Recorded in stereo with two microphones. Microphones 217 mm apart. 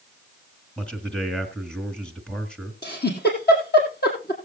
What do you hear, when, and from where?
0.8 s a man speaking: 5° left (ahead or behind), 1.6 m
2.8 s a giggle: 55° left (ahead or behind), 3 m